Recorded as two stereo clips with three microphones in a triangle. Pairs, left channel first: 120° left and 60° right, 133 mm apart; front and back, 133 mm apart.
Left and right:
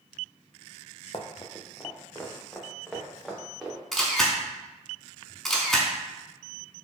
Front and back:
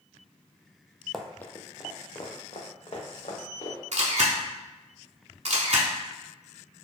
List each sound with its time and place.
1.1 s running footsteps: 90° left, 0.5 m; by 3.8 s 30° left, 1.6 m
3.9 s a camera shutter: 150° right, 0.8 m